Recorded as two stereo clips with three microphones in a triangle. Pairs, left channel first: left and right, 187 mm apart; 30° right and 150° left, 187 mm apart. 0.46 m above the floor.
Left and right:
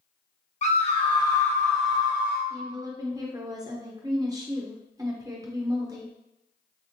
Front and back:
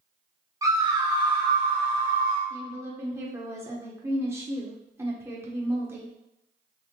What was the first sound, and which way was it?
A scream, 90° left.